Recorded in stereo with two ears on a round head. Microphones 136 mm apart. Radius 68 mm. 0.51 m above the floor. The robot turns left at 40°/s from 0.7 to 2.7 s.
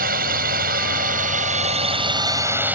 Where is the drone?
85° right; by 2.8 s 165° right.